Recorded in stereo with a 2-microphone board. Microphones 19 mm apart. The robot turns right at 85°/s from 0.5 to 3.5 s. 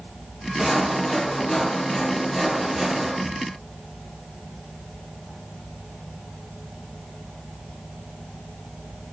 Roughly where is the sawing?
Centre.